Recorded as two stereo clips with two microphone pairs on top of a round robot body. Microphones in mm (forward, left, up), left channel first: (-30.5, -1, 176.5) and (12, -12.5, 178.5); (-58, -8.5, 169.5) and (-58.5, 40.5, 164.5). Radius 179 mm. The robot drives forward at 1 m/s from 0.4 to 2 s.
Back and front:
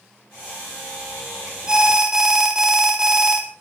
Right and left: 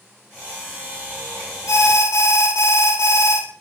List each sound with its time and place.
1.7 s an alarm: 85° right, 4.5 m; by 3.4 s 90° right, 4.5 m